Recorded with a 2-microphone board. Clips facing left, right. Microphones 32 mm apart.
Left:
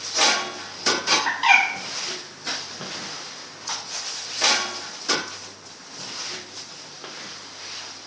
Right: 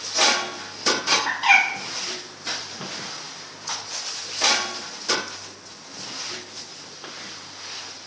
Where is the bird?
10° left (ahead or behind), 1.6 m.